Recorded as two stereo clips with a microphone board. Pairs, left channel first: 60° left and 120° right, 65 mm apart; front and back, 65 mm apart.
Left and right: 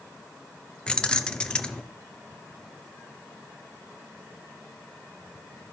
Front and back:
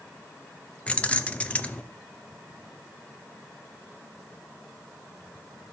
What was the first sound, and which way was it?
Keys jangling, 20° left.